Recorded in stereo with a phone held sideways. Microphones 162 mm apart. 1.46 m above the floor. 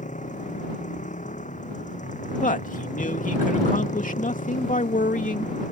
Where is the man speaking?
60° left (ahead or behind).